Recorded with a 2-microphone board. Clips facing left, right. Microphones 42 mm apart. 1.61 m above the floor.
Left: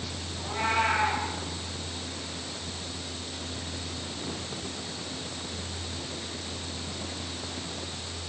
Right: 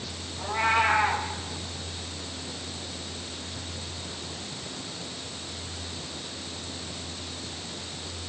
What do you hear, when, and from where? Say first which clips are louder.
0.4 s a cat meowing: right 3 dB; 25° right (ahead or behind), 4.5 m